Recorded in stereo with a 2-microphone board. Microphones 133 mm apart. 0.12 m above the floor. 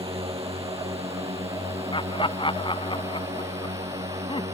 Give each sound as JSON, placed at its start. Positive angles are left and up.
{"t": 0.0, "sound": "a drone", "side_deg": -50}
{"t": 1.9, "sound": "laughter", "side_deg": 40}